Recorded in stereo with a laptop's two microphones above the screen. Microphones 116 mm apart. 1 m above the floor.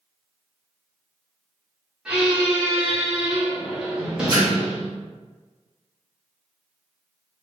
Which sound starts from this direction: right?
A splash, at 4.3 s.